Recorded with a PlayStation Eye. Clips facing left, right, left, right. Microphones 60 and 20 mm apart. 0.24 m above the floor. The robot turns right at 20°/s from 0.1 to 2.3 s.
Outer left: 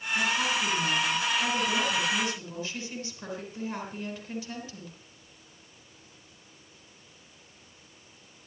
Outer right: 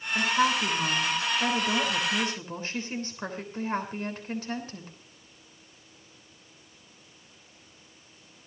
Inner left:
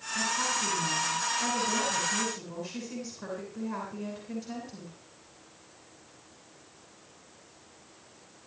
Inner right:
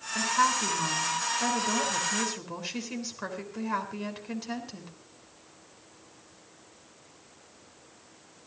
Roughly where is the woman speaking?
Right.